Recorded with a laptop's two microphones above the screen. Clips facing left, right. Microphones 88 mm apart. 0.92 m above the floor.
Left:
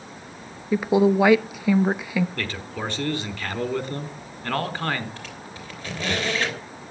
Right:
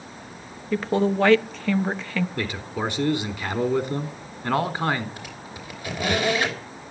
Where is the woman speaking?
10° left (ahead or behind), 0.9 m.